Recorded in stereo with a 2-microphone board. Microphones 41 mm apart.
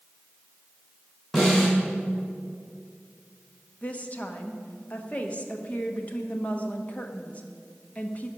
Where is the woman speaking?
35° left (ahead or behind), 1.1 m.